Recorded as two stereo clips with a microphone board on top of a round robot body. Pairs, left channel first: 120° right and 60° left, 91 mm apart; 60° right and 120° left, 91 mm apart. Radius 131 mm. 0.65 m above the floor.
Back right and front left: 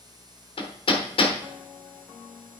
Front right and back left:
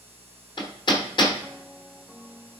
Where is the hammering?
95° right, 1.3 m.